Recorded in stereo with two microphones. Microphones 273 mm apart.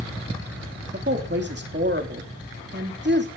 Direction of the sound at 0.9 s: 40° right (ahead or behind).